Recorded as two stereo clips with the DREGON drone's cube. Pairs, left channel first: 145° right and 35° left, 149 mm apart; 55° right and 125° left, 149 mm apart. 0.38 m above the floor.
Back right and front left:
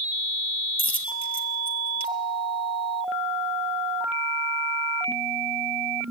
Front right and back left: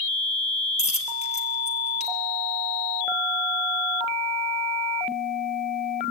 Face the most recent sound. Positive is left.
turn(degrees=-95)